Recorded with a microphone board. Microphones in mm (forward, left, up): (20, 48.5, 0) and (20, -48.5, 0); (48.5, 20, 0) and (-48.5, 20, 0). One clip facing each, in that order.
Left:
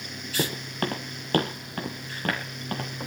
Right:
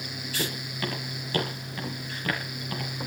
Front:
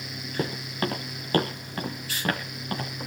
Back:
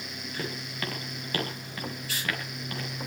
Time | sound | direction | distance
0.4 | footsteps | 50° left | 3 m